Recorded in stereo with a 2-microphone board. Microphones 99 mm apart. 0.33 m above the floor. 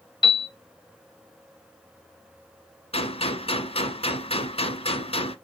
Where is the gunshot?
65° left (ahead or behind), 1.4 m.